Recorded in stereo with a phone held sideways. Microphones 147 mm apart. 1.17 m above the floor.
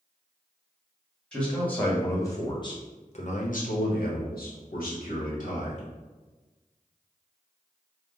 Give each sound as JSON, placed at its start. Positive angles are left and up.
{"t": 1.3, "sound": "a man speaking", "side_deg": 5, "distance_m": 1.5}